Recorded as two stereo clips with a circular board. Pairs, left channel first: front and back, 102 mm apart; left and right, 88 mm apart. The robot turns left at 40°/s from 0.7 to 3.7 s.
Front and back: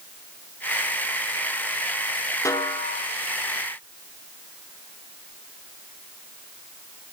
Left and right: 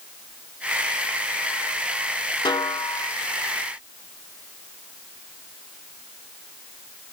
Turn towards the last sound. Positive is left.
turn(degrees=5)